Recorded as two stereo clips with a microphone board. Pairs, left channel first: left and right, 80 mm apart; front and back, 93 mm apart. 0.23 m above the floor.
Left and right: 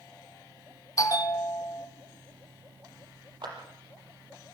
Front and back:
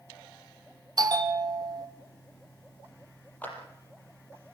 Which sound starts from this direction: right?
A clap, at 3.4 s.